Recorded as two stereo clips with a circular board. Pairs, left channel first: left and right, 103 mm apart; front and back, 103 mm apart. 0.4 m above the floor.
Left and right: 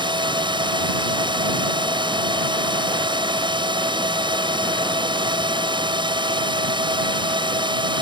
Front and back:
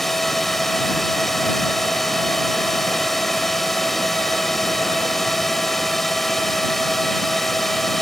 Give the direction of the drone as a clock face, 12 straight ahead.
3 o'clock.